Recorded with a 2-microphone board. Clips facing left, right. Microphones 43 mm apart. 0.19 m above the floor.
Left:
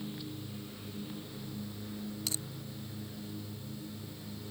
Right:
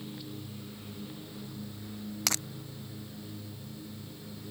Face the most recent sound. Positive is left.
turn(degrees=-85)